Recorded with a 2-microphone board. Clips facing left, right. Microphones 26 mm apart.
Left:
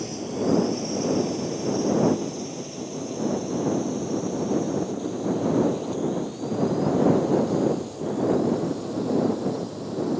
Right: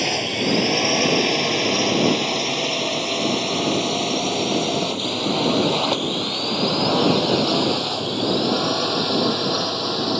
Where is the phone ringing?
I don't hear a phone ringing.